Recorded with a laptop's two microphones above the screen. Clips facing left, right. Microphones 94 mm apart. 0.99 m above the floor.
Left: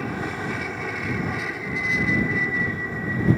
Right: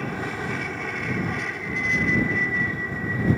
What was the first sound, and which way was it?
An aircraft, 5° left (ahead or behind).